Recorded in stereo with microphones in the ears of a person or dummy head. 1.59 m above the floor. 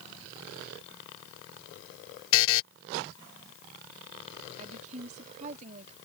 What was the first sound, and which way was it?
A buzzer, 75° left (ahead or behind).